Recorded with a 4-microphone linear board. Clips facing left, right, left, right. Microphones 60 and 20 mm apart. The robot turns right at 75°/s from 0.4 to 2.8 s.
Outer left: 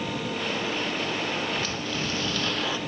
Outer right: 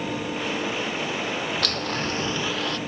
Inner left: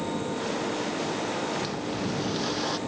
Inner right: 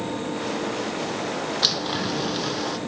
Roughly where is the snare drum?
No snare drum in this recording.